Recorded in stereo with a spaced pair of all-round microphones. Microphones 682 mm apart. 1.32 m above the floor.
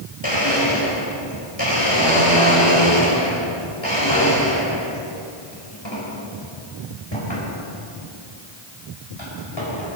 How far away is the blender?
About 4.5 m.